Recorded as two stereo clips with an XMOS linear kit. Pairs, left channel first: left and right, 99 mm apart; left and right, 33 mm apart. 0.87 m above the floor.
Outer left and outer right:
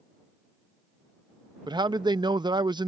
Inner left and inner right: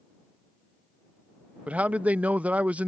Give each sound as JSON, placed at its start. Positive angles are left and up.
{"t": 1.7, "sound": "a man speaking", "side_deg": -50}